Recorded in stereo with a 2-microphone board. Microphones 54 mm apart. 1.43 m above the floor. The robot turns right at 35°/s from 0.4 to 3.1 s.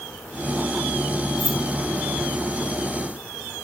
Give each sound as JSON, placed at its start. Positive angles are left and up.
{"t": 1.4, "sound": "keys jangling", "side_deg": -45, "distance_m": 1.1}